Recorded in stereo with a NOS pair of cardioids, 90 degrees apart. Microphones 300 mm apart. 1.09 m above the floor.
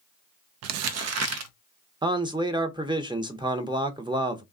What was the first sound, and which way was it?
Crumpling, 60° right.